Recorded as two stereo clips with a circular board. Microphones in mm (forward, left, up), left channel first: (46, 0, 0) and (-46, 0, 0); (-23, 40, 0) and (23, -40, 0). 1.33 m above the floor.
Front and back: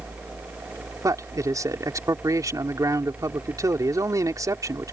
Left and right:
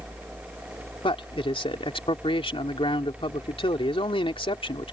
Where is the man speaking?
130° left.